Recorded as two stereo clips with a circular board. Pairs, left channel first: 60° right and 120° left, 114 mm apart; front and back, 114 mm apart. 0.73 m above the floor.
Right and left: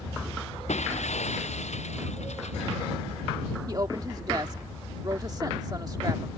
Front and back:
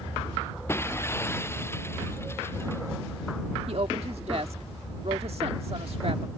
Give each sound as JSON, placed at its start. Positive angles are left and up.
{"t": 0.7, "sound": "breaking glass", "azimuth_deg": -70}
{"t": 3.7, "sound": "a woman speaking", "azimuth_deg": 170}